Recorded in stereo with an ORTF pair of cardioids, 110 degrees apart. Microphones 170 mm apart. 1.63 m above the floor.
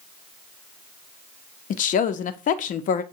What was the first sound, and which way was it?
A woman speaking, 50° left.